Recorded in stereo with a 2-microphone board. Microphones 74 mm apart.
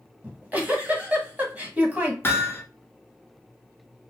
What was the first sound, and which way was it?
A giggle, 20° right (ahead or behind).